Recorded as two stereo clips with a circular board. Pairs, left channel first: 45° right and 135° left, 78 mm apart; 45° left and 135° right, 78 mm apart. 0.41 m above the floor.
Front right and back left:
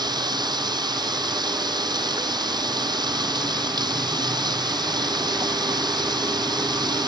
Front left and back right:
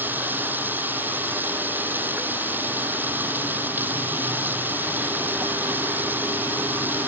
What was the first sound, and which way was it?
Running water, 160° left.